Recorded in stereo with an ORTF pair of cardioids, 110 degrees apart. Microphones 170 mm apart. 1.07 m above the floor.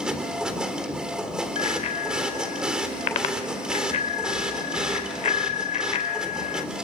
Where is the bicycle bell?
50° left, 2.5 m.